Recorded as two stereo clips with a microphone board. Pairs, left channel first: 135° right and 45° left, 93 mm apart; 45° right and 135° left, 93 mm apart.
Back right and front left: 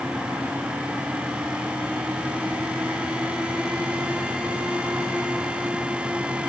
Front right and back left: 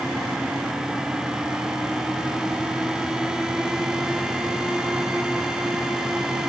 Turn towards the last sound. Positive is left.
No sound to turn to.